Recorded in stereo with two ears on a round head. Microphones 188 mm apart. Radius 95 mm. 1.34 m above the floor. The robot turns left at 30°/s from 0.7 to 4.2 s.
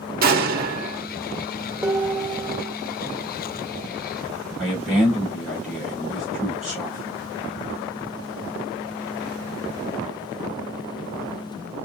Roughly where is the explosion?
Right.